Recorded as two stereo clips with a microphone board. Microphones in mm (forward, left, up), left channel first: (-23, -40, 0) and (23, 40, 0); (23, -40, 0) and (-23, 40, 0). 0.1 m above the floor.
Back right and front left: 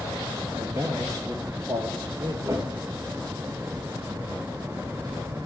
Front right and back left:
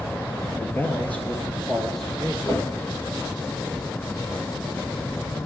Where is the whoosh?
5° left, 4 m.